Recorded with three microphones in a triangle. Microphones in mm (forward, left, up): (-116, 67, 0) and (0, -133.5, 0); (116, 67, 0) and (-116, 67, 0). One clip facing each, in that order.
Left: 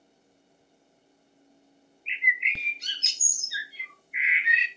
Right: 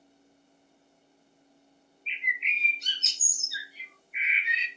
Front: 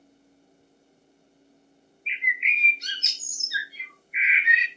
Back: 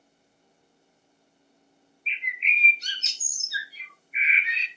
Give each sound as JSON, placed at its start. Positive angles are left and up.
{"t": 2.1, "sound": "a bird", "azimuth_deg": 125, "distance_m": 0.9}